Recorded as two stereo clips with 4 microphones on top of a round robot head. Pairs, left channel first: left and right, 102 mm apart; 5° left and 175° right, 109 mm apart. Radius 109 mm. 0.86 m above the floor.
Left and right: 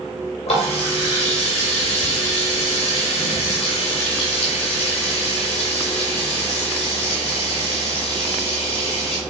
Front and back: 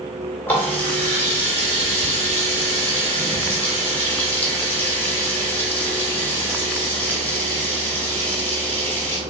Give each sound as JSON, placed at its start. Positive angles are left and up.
{"t": 0.5, "sound": "a running tap", "azimuth_deg": 80, "distance_m": 1.6}